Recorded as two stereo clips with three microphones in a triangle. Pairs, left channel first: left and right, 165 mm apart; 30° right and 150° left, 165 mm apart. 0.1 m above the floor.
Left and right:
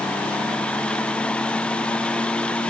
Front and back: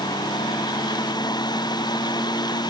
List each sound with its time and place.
Only background noise.